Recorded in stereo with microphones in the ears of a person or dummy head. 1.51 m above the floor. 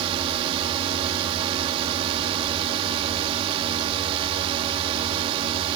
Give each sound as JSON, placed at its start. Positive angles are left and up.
{"t": 0.0, "sound": "a drone", "side_deg": -35}